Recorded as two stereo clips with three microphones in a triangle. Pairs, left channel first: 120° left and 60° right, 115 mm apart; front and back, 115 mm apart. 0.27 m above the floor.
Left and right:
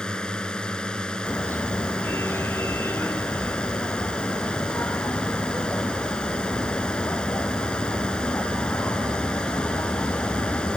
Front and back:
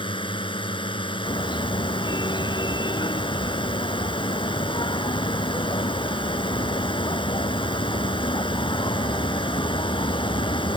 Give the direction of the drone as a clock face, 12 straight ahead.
11 o'clock.